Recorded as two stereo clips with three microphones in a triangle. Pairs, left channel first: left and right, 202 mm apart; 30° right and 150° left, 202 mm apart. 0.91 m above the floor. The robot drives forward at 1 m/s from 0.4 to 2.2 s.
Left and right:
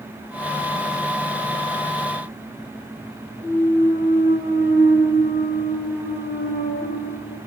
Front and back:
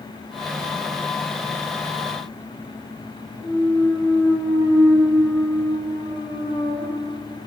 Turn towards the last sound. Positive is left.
turn(degrees=65)